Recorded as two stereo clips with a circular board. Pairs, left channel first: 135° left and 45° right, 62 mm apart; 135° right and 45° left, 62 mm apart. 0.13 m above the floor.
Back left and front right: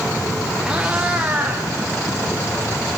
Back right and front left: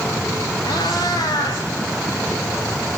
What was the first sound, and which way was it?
A cat meowing, 125° right.